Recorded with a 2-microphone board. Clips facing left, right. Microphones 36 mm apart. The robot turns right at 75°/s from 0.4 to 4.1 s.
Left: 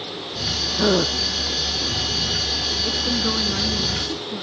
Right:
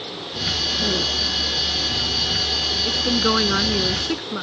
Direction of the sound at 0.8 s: 80° left.